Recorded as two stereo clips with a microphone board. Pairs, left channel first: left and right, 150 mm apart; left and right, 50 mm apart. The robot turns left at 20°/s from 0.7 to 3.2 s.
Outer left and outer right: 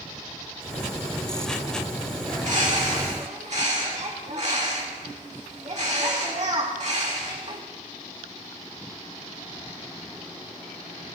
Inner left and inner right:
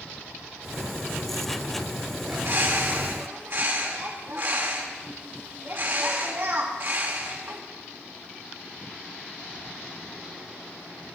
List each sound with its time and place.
2.3 s a bird: 60° right (ahead or behind), 1.9 m; by 7.6 s 55° right (ahead or behind), 1.9 m